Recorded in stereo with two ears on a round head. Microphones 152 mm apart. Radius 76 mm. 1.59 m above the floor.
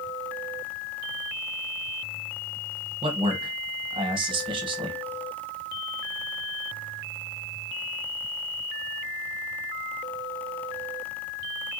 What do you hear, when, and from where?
3.0 s a man speaking: 30° right (ahead or behind), 1.0 m